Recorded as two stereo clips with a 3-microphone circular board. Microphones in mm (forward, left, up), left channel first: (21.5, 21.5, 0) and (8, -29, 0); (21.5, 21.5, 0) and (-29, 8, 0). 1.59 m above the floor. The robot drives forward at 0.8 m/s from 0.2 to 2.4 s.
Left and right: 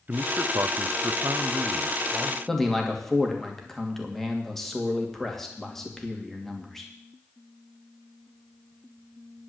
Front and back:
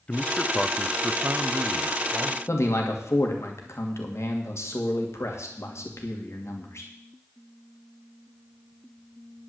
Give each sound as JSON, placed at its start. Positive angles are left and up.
{"t": 0.1, "sound": "a man speaking", "azimuth_deg": -50, "distance_m": 0.7}
{"t": 2.5, "sound": "a man speaking", "azimuth_deg": -10, "distance_m": 2.5}